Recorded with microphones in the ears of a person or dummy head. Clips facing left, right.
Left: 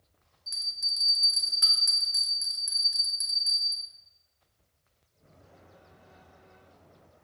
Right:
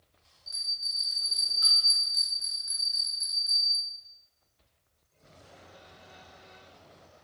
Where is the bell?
40° left (ahead or behind), 0.7 m.